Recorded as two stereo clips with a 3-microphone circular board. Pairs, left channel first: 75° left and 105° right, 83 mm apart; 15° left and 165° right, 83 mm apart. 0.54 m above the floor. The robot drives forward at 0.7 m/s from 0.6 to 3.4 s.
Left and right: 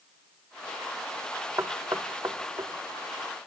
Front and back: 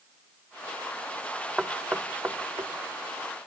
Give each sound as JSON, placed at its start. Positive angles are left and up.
{"t": 1.6, "sound": "knocking", "azimuth_deg": -90, "distance_m": 1.1}